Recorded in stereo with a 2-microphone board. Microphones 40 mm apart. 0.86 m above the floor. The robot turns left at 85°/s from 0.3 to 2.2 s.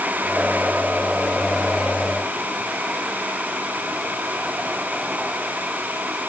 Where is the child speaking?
No child speaking in this recording.